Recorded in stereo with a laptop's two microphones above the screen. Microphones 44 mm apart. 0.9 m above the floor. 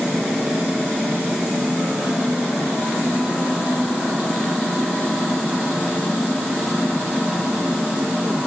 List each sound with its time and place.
Only background noise.